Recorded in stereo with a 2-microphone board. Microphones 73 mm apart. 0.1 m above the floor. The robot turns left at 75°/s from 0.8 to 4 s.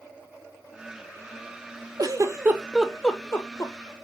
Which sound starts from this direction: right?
A giggle, at 2.0 s.